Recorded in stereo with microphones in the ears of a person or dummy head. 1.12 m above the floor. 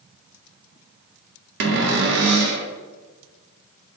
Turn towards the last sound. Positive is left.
turn(degrees=-65)  # may be behind; listen again after turning